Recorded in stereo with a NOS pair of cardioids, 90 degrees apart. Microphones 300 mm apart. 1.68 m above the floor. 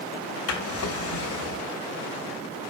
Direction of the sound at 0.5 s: 55° left.